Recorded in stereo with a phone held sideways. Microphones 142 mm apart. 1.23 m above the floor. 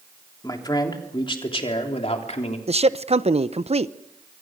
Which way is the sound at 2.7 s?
45° right (ahead or behind).